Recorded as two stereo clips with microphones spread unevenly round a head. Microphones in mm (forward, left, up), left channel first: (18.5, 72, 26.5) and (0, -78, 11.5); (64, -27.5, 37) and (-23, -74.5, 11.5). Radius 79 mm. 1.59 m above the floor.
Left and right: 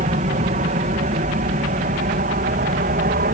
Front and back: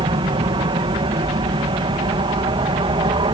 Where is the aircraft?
135° right; by 3.3 s 125° right.